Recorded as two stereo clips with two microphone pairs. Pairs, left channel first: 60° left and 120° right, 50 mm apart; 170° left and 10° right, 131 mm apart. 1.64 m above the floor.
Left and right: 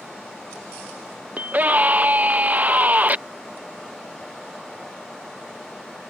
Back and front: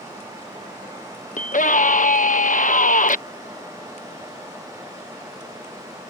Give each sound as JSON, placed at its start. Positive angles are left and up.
{"t": 1.4, "sound": "a scream", "azimuth_deg": -175}